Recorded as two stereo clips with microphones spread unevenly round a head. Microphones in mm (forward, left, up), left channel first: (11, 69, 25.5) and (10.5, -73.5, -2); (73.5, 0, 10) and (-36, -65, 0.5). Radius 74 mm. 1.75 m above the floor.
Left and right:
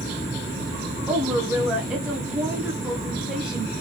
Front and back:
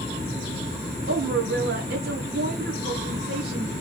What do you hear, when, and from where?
1.1 s a woman speaking: straight behind, 1.3 m